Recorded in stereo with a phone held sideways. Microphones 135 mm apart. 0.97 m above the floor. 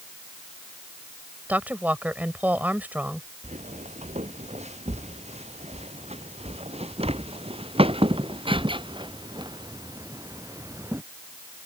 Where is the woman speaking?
15° right (ahead or behind).